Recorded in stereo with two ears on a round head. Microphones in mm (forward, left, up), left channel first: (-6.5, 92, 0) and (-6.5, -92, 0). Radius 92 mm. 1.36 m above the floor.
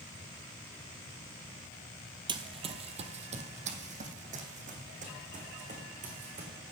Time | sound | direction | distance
2.3 | running footsteps | 25° right (ahead or behind) | 1.5 m